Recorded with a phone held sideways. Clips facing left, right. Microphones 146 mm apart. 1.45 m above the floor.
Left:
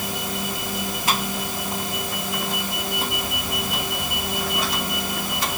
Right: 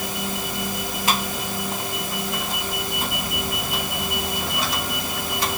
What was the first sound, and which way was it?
Only background noise.